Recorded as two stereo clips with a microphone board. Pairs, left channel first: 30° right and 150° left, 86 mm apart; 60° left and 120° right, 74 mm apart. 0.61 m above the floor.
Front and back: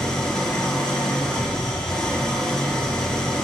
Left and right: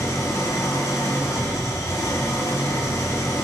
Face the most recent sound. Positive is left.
turn(degrees=50)